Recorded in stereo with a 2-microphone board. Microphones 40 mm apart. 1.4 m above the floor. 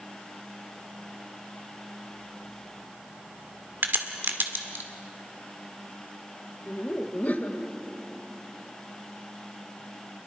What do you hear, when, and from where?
3.8 s a crack: 60° right (ahead or behind), 1.7 m
6.7 s laughter: 40° left (ahead or behind), 1.4 m